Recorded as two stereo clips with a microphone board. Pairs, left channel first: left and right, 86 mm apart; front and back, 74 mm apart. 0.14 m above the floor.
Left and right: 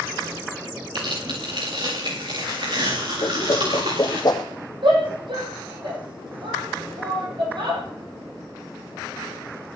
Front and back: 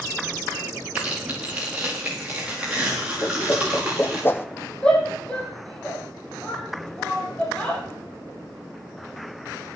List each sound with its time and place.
0.9 s tearing paper: 105° right, 7 m
3.2 s a whoosh: 60° left, 1.0 m
4.8 s a shout: 80° right, 5 m